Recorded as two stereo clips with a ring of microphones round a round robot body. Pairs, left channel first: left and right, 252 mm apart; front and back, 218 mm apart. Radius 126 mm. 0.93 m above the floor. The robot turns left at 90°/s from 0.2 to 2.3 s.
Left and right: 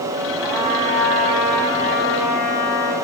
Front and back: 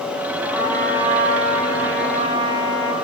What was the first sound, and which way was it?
A trumpet, 80° right.